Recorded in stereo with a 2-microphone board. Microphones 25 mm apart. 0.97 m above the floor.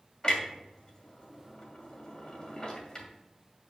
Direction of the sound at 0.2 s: 35° left (ahead or behind).